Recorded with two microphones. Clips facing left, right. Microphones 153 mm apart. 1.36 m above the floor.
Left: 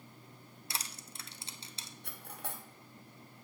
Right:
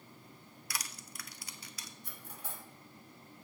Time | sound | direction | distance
0.7 | crushing | 25° left (ahead or behind) | 0.6 m
2.0 | cutlery clinking | 65° left (ahead or behind) | 1.2 m